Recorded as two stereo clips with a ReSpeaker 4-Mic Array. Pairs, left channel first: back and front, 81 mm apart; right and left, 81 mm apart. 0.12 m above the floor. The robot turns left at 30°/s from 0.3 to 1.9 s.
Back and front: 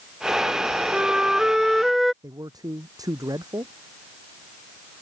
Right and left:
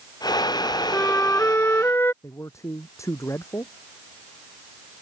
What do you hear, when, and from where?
0.9 s a flute: 60° right; by 2.1 s 90° right
2.2 s a man speaking: 40° right